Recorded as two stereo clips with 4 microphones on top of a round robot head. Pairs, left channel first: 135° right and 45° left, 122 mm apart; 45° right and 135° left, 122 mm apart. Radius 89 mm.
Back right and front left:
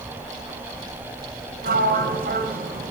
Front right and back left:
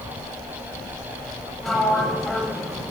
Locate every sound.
1.6 s a sliding door: 40° left, 1.0 m